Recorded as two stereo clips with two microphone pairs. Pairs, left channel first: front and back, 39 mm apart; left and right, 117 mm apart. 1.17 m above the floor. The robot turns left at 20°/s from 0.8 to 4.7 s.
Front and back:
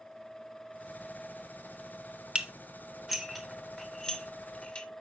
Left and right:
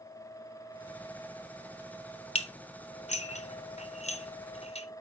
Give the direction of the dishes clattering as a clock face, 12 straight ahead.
8 o'clock.